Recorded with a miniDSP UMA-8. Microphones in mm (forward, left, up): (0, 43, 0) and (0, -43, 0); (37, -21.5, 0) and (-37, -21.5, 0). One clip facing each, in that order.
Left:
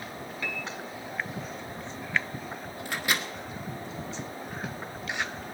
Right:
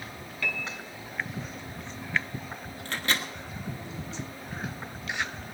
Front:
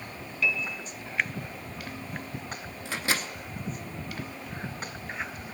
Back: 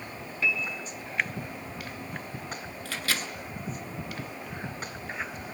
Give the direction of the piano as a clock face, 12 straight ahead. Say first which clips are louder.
Right 3 dB, even; 7 o'clock.